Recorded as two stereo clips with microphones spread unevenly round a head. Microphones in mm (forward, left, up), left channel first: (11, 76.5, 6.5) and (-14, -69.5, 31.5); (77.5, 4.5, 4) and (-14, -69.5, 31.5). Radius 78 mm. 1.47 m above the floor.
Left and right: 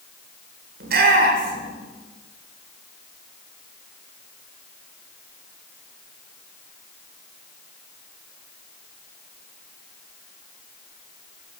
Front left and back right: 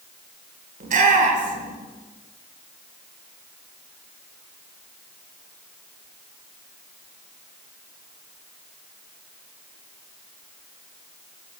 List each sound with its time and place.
0.8 s a shout: 130° right, 7 m